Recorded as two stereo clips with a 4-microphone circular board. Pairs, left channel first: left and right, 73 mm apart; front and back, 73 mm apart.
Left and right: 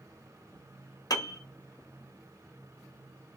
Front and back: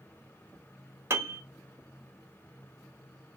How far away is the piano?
About 0.8 m.